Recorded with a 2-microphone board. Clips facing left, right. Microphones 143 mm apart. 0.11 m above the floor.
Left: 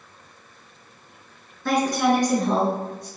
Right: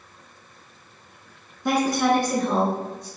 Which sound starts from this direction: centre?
A woman speaking, at 1.6 s.